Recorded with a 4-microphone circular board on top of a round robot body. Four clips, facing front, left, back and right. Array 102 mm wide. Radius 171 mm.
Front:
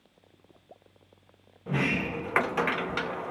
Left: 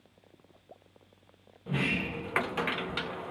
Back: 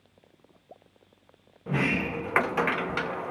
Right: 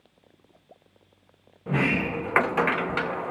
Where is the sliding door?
100° right, 0.8 m.